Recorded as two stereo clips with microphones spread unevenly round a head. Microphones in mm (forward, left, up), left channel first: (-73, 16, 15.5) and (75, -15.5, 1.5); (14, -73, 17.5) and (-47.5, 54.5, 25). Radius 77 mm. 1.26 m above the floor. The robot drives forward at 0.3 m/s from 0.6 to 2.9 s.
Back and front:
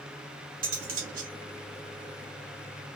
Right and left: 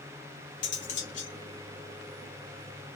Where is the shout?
No shout in this recording.